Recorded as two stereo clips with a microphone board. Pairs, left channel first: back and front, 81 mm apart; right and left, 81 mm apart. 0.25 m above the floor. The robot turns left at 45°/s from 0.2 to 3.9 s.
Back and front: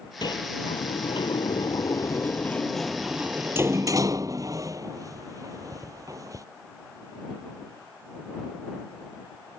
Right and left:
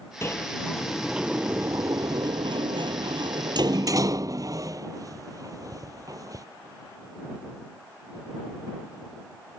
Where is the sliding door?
150° right; by 6.5 s 45° left.